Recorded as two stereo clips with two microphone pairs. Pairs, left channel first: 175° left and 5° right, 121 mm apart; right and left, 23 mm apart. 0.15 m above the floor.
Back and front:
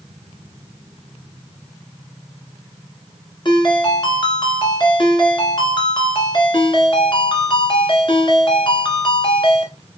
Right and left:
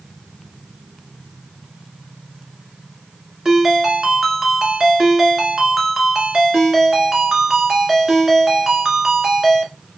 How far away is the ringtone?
About 1.5 m.